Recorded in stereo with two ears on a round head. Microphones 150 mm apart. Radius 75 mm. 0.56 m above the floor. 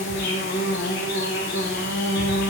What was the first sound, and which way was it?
An insect, 60° left (ahead or behind).